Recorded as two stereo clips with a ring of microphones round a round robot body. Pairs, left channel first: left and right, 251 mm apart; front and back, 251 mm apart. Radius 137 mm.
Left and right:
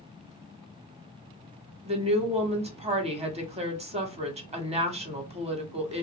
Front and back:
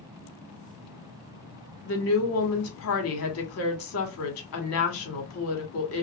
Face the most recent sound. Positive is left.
turn(degrees=-25)